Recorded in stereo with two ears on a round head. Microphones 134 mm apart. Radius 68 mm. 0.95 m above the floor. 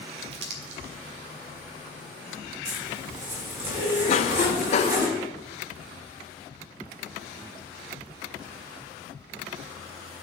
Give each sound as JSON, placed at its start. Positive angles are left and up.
{"t": 0.3, "sound": "crumpling", "side_deg": -85, "distance_m": 1.4}
{"t": 2.6, "sound": "a zipper", "side_deg": -30, "distance_m": 3.0}
{"t": 4.1, "sound": "a cough", "side_deg": 45, "distance_m": 0.6}